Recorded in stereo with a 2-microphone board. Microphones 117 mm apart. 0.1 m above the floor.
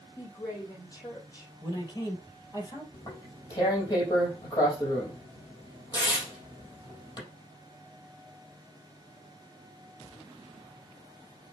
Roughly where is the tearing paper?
Left.